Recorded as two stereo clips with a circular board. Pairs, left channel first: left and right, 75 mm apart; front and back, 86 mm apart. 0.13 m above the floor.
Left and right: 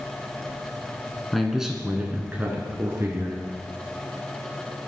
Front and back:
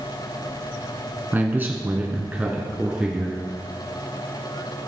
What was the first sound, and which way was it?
A man speaking, 175° left.